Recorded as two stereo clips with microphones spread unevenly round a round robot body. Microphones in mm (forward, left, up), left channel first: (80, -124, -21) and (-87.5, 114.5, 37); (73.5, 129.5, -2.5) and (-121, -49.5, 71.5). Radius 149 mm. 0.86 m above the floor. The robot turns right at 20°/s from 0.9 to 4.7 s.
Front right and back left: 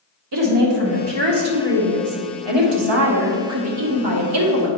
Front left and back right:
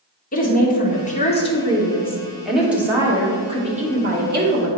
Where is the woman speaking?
100° left, 2 m; by 4.7 s 175° left, 2 m.